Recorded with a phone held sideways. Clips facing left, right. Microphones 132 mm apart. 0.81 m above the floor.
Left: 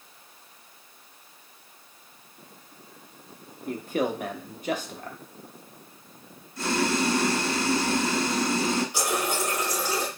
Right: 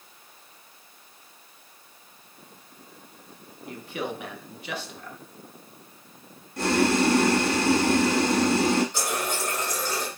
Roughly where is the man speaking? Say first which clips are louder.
Left 6 dB; left.